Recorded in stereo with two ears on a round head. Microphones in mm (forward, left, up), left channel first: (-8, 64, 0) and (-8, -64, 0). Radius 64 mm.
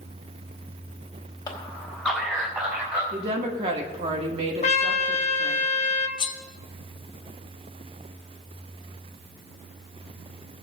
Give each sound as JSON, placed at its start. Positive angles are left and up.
{"t": 1.5, "sound": "a man speaking", "side_deg": 25, "distance_m": 1.3}
{"t": 3.1, "sound": "a woman speaking", "side_deg": -45, "distance_m": 1.6}
{"t": 4.6, "sound": "a trumpet", "side_deg": 45, "distance_m": 0.7}
{"t": 6.2, "sound": "cutlery clinking", "side_deg": 30, "distance_m": 0.8}